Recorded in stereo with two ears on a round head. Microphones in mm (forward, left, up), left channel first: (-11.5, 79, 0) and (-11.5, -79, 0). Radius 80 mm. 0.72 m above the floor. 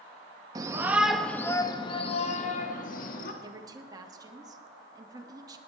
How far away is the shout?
About 0.8 m.